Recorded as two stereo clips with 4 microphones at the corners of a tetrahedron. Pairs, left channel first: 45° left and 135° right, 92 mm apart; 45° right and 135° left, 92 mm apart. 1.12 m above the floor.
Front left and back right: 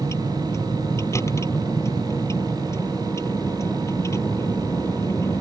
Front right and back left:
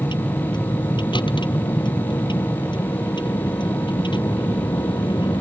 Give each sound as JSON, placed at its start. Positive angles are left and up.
{"t": 0.0, "sound": "a vehicle", "azimuth_deg": -15}